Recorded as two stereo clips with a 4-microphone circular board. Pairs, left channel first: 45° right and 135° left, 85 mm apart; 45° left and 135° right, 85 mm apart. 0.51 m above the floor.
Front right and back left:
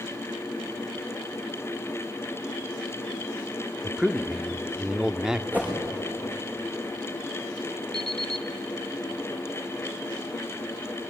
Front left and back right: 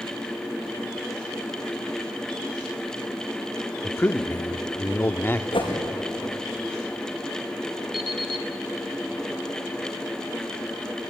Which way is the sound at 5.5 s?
65° left.